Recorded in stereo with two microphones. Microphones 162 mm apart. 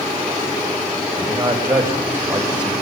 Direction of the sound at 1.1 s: 25° right (ahead or behind).